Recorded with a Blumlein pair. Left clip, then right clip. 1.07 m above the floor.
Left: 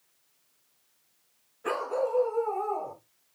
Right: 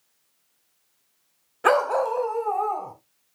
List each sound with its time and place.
1.6 s a dog barking: 45° right, 1.6 m; by 2.9 s 75° right, 3 m